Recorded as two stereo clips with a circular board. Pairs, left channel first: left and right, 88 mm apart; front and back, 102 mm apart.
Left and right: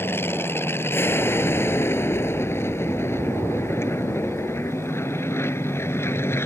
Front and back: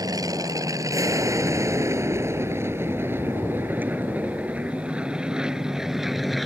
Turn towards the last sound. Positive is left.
turn(degrees=90)